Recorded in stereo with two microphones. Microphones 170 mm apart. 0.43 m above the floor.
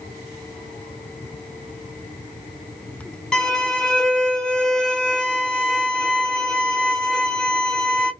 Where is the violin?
5° left (ahead or behind), 0.9 m.